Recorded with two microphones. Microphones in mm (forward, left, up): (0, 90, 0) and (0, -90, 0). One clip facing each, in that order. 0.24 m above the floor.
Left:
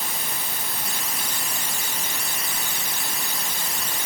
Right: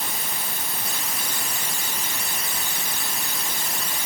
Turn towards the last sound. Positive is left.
No sound to turn to.